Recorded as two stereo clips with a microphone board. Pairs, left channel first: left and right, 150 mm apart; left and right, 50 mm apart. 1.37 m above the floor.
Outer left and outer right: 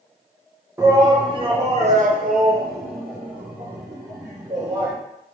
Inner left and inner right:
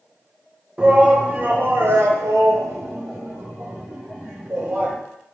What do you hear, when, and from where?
0.8 s a shout: 20° right (ahead or behind), 1.0 m; by 4.9 s 55° right (ahead or behind), 1.7 m